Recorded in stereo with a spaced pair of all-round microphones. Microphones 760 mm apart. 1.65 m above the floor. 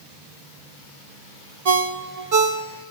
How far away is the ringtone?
About 0.8 m.